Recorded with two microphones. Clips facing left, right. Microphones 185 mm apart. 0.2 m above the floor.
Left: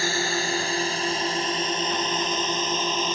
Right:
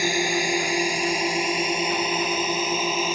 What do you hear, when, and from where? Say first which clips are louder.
0.0 s a drone: right 3 dB; 15° right (ahead or behind); by 3.2 s 10° right (ahead or behind)